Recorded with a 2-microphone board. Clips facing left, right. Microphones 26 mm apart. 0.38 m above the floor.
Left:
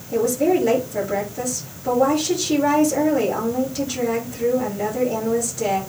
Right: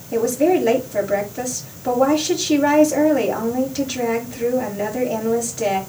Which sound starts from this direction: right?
A woman speaking, at 0.1 s.